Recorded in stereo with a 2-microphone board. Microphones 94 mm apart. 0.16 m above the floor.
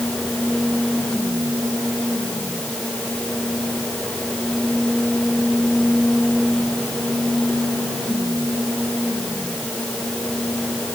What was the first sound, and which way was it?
Only background noise.